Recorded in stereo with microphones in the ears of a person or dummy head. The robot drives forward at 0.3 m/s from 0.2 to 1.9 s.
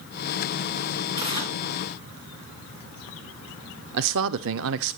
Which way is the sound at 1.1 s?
30° right (ahead or behind).